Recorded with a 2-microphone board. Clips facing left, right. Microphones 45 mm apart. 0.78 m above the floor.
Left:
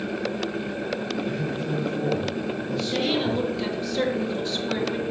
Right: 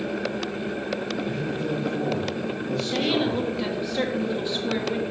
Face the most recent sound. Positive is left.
turn(degrees=-15)  # may be behind; listen again after turning